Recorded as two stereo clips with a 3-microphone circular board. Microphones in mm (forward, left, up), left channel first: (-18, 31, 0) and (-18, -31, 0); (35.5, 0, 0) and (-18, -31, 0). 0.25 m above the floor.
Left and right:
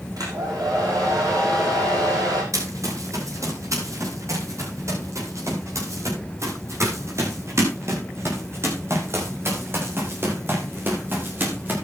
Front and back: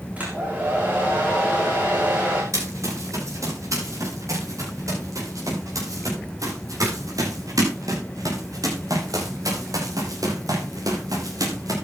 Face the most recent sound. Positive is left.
turn(degrees=-145)